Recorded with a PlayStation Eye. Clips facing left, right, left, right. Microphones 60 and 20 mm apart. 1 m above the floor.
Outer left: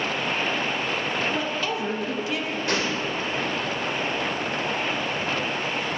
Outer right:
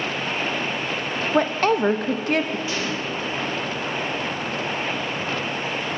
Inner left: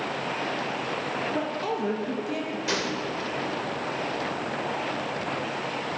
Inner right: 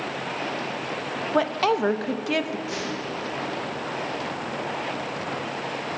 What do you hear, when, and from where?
1.3 s a woman speaking: 55° right (ahead or behind), 0.8 m
2.7 s a gunshot: 70° left (ahead or behind), 2.5 m